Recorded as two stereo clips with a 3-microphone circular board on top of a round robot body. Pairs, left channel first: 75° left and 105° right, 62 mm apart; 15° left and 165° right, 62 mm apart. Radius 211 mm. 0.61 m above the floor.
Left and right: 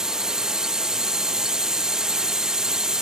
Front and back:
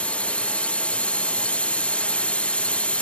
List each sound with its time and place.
0.0 s a drone: 35° right